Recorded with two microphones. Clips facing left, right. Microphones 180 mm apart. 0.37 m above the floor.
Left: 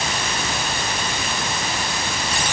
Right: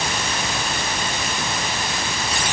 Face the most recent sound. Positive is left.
No sound to turn to.